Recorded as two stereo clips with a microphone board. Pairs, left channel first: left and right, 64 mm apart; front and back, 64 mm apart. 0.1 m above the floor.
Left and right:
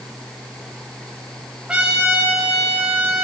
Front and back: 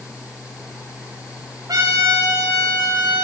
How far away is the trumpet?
About 4.5 m.